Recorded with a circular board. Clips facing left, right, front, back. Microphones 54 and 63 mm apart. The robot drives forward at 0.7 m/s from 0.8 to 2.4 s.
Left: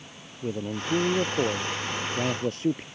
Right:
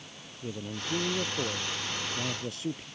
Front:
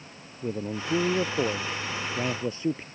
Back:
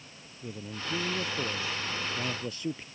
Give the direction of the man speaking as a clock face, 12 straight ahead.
11 o'clock.